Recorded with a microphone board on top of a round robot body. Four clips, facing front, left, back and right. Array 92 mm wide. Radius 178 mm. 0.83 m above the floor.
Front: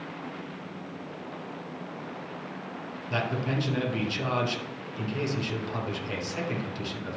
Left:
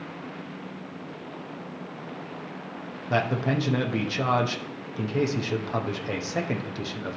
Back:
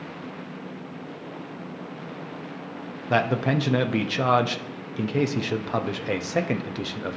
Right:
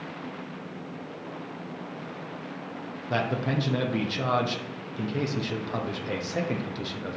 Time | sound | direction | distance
3.1 | a man speaking | 170° left | 1.1 m